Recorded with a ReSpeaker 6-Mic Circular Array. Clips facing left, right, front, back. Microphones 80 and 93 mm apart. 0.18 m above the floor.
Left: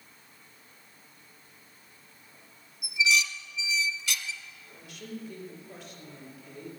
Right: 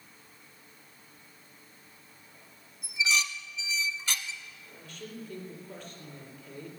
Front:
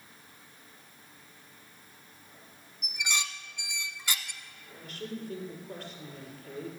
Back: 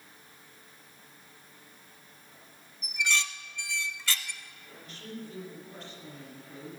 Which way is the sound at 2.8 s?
60° right.